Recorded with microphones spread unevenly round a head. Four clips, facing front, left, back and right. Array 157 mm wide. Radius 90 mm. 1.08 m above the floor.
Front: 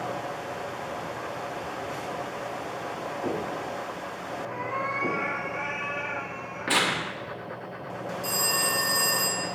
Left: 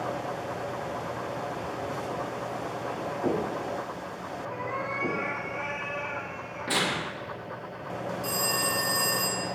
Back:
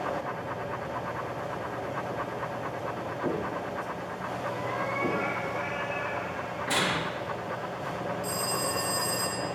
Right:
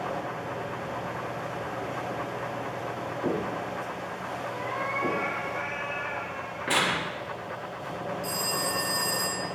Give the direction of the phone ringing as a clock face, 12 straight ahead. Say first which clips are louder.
Left 1 dB, front 1 dB; 12 o'clock.